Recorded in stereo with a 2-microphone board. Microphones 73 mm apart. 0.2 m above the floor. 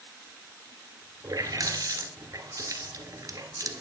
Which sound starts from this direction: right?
A running tap, at 1.2 s.